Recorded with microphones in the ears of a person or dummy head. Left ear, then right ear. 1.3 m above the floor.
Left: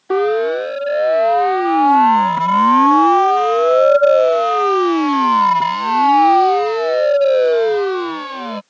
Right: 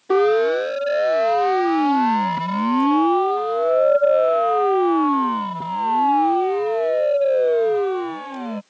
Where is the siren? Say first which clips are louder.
Left 1 dB; 10° left (ahead or behind); by 8.6 s 50° left (ahead or behind).